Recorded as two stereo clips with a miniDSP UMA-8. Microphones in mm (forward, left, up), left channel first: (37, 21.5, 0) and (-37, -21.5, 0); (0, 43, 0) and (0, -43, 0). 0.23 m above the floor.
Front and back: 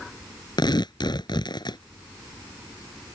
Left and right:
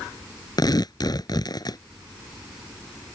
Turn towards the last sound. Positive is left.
turn(degrees=55)